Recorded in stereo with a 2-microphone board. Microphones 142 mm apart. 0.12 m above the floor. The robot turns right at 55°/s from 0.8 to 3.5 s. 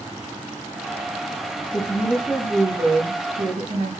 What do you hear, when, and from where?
1.7 s a woman speaking: 150° left, 7 m; by 3.9 s 110° right, 7 m